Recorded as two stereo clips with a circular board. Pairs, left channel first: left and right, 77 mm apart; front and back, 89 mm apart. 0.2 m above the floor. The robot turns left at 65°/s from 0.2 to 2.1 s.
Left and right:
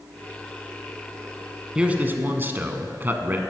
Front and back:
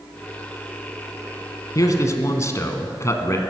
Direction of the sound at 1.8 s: 15° right.